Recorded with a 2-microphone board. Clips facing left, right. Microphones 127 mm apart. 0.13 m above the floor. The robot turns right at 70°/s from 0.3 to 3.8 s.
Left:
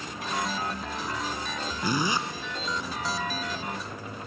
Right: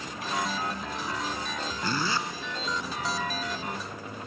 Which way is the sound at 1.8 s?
15° left (ahead or behind).